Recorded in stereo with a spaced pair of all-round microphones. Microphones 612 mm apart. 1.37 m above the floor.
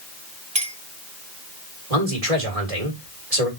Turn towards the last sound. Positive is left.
turn(degrees=-70)  # may be behind; listen again after turning